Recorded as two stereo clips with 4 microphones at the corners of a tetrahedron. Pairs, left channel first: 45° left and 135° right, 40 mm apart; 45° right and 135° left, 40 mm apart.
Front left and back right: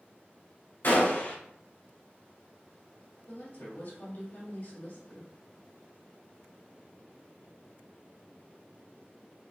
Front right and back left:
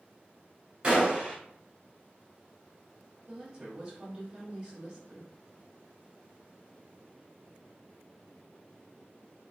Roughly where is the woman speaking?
Ahead left.